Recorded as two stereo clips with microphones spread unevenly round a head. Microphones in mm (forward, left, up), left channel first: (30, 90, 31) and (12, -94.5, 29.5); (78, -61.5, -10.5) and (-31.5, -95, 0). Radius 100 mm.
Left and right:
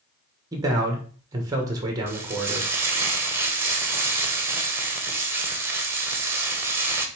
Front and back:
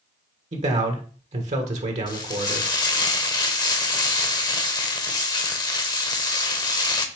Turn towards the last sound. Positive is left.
turn(degrees=-20)